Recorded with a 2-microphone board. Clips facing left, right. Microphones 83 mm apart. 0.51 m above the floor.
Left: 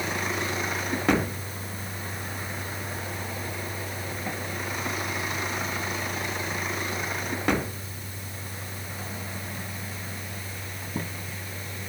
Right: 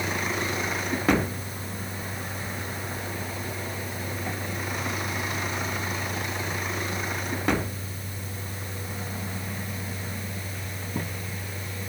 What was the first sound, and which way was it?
Only background noise.